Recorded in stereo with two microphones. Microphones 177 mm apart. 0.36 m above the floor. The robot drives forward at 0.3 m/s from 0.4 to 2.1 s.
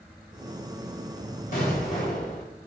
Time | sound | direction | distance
1.5 | an explosion | 50° left (ahead or behind) | 1.8 m